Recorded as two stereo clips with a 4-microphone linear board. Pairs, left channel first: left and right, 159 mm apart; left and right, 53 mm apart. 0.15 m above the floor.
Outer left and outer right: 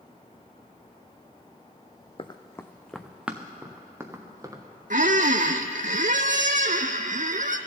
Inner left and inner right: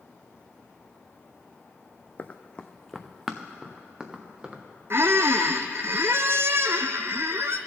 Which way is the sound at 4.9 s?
60° right (ahead or behind).